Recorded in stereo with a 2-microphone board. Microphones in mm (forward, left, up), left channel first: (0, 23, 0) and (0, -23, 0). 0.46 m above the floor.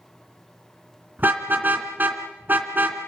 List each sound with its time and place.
1.2 s a car horn: 45° right (ahead or behind), 2.5 m